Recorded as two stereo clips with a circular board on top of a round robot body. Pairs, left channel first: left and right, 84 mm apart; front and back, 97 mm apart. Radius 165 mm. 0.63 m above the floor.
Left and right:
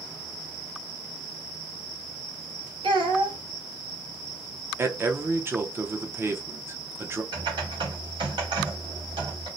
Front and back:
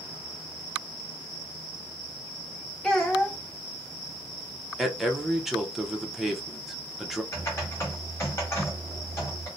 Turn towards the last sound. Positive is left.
turn(degrees=-65)